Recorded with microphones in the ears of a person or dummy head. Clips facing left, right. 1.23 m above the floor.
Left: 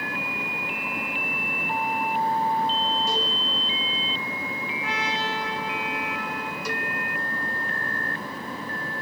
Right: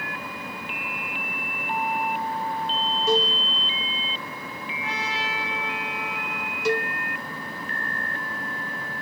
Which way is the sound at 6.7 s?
25° right (ahead or behind).